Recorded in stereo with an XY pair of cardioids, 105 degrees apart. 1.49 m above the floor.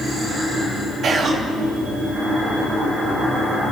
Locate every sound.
1.0 s whispering: 55° right, 3 m